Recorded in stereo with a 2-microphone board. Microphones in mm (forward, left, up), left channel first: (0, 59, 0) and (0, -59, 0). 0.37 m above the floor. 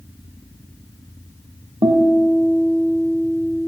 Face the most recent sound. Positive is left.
turn(degrees=-40)  # may be behind; listen again after turning